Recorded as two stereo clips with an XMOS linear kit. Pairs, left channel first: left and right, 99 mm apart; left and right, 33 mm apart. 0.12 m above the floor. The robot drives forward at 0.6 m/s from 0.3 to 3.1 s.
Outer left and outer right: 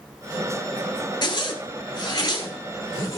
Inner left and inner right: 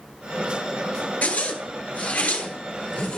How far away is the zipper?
About 1.3 m.